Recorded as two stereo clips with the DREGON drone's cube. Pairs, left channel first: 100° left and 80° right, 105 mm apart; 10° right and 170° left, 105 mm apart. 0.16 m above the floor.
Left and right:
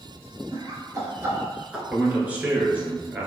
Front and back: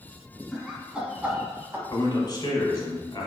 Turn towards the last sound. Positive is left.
turn(degrees=-10)